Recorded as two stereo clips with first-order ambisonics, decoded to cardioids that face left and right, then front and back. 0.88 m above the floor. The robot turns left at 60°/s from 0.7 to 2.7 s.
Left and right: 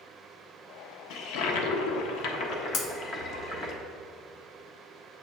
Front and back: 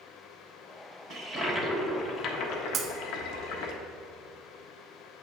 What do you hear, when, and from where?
1.1 s a toilet flushing: 120° left, 1.2 m; by 3.7 s 25° left, 1.2 m
2.7 s breaking glass: 120° left, 1.2 m